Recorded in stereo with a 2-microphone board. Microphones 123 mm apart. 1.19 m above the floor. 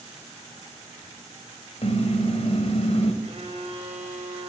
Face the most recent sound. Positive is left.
turn(degrees=-55)  # may be behind; listen again after turning